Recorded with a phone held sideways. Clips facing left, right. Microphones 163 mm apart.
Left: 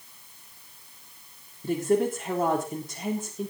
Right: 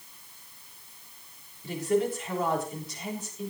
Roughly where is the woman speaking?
Left.